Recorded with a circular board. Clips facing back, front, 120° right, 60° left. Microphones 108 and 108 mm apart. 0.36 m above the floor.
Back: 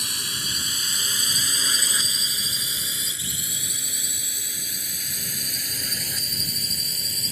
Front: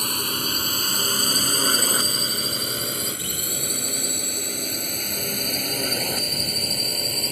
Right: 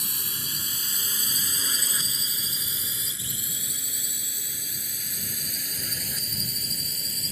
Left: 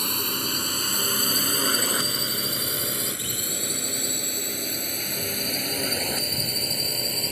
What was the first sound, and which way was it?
A drone, 40° left.